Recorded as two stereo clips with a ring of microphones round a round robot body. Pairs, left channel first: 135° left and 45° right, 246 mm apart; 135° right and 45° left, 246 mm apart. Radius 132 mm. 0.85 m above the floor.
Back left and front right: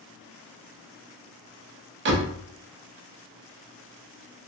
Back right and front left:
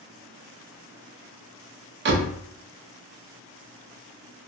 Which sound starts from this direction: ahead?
A door slam, at 2.0 s.